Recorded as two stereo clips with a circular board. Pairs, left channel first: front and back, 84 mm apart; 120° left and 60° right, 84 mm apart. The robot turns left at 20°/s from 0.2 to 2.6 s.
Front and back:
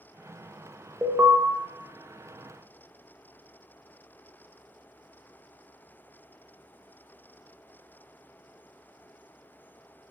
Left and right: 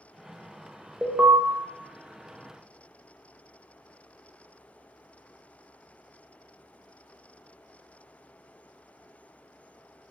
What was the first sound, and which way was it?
An alarm, 120° right.